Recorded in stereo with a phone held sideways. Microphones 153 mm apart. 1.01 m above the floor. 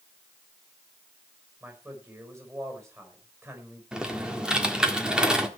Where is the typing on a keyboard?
5° right (ahead or behind), 1.6 m.